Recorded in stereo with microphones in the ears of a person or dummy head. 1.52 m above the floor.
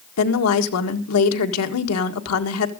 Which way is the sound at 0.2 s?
80° left.